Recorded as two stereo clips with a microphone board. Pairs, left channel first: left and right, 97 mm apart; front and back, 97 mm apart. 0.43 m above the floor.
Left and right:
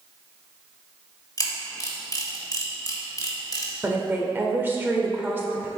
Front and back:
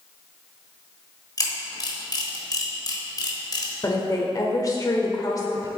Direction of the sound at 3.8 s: 30° right.